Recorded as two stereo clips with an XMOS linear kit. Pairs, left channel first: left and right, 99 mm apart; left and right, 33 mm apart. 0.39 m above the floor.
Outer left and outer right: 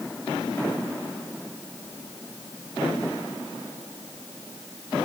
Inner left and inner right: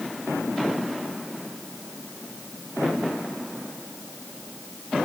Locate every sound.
Only background noise.